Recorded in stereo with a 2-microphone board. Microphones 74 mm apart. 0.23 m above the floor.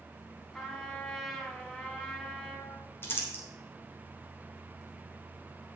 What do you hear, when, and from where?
0.5 s a trumpet: 5° left (ahead or behind), 1.8 m
3.0 s crumpling: 30° left (ahead or behind), 3 m